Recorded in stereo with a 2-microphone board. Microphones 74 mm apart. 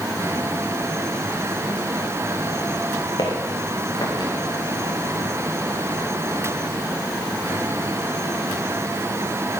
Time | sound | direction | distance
3.2 | footsteps | 75° left (ahead or behind) | 4.5 m